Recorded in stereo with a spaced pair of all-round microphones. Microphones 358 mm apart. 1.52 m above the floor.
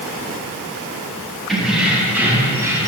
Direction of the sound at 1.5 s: Centre (ahead or behind).